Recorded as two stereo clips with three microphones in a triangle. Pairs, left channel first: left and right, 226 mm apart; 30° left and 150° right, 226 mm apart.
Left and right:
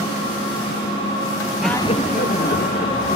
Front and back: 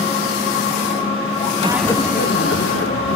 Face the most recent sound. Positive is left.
turn(degrees=45)